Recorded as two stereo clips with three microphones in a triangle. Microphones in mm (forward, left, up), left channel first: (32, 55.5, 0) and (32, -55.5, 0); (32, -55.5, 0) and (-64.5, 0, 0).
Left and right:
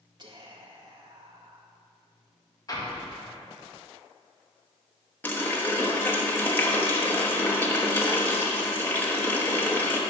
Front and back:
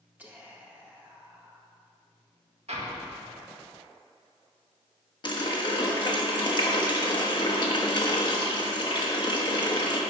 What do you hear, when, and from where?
0.2 s whispering: 135° right, 1.7 m
2.7 s an explosion: 145° left, 1.6 m
5.2 s a running tap: 15° left, 1.2 m